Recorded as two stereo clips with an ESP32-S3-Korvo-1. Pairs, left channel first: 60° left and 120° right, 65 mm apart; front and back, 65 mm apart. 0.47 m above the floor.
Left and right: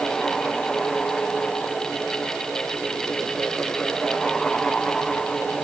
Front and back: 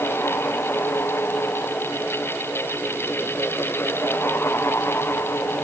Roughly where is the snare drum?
I don't hear a snare drum.